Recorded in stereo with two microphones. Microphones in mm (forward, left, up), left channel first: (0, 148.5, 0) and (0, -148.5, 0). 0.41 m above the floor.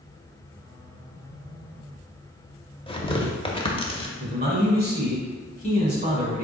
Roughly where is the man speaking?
Right.